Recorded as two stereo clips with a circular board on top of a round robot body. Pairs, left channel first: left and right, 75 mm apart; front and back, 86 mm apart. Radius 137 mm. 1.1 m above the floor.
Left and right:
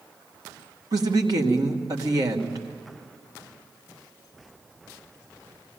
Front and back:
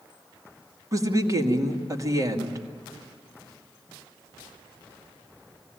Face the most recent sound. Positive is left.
turn(degrees=-130)